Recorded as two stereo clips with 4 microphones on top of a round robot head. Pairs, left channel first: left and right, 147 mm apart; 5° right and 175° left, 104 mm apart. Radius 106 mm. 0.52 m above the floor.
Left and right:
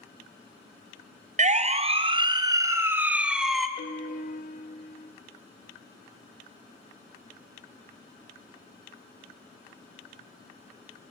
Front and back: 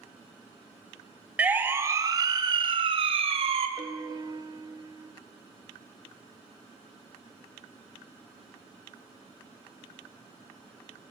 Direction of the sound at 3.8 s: 125° left.